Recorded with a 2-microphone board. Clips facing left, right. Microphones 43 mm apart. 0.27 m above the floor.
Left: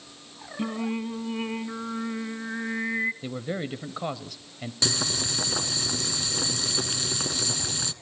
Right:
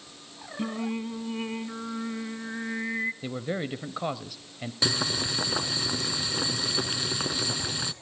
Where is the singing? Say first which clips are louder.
Left 2 dB; 10° left (ahead or behind), 1.2 m.